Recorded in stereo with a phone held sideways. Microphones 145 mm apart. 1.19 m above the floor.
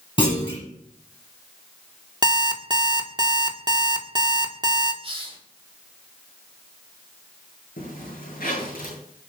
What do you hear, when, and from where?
0.2 s a clunk: 35° left (ahead or behind), 7 m
2.2 s an alarm clock: 30° right (ahead or behind), 1.5 m
5.0 s a hiss: 40° right (ahead or behind), 3.5 m
7.8 s a zipper: 75° left (ahead or behind), 8 m